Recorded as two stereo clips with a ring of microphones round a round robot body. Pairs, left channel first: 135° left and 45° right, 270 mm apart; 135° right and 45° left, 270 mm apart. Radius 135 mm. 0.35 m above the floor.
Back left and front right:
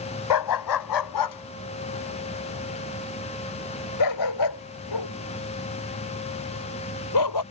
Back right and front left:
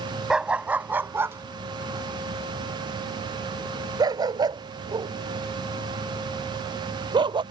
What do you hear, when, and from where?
0.3 s a dog barking: 135° left; by 7.4 s 120° left